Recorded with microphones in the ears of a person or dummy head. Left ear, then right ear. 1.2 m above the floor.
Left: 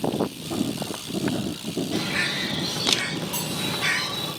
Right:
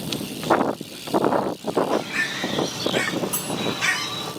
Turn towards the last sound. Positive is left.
turn(degrees=-35)  # may be behind; listen again after turning